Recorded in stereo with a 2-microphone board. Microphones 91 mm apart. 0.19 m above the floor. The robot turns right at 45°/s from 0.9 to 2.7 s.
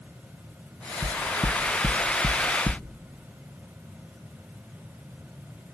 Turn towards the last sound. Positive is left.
turn(degrees=10)  # may be behind; listen again after turning